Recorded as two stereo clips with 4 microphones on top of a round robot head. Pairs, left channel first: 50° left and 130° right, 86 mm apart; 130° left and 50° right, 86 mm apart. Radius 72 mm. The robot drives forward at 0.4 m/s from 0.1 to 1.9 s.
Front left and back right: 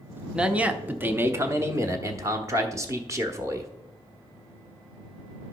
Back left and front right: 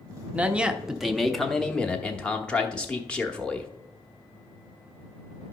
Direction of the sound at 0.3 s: 75° right.